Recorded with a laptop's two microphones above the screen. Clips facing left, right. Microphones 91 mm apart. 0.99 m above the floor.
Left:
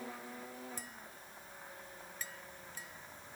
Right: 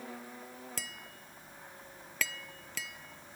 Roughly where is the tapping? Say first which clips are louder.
Right 3 dB; right.